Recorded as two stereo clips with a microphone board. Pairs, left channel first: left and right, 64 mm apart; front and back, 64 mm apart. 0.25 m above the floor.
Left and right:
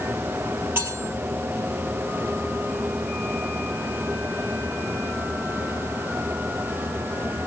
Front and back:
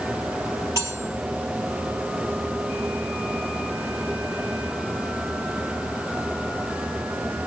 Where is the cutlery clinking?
145° right, 3.5 m.